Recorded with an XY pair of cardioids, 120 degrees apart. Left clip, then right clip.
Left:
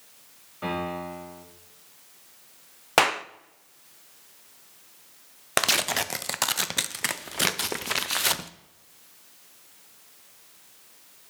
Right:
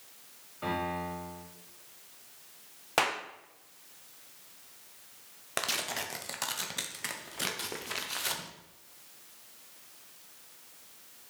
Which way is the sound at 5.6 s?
50° left.